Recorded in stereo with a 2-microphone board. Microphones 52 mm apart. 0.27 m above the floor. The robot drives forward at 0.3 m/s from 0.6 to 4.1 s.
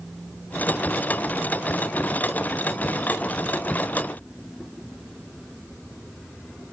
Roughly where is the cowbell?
I don't hear a cowbell.